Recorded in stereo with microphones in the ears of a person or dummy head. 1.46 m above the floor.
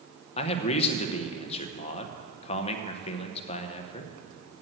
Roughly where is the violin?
I don't hear a violin.